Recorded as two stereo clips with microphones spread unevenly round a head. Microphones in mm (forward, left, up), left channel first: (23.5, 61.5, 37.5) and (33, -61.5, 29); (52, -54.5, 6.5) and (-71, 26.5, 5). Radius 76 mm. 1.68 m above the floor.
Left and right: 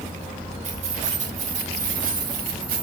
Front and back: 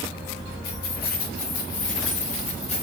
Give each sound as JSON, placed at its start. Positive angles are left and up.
{"t": 0.6, "sound": "keys jangling", "azimuth_deg": -50, "distance_m": 4.0}